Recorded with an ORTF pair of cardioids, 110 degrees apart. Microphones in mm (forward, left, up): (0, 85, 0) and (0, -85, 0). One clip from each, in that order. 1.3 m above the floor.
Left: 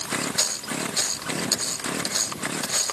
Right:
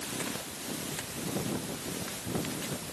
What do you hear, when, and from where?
Only background noise.